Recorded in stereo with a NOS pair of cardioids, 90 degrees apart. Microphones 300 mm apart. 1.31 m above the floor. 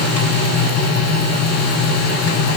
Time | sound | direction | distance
0.0 | a machine running | 60° left | 5.5 m